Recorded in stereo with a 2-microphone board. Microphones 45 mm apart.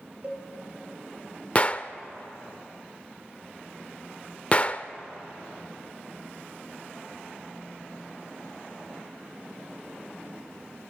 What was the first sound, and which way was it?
A cowbell, 35° right (ahead or behind).